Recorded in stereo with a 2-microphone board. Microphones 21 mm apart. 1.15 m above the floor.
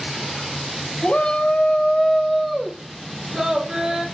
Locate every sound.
1.0 s a shout: 60° left (ahead or behind), 1.0 m; by 4.0 s 25° right (ahead or behind), 1.8 m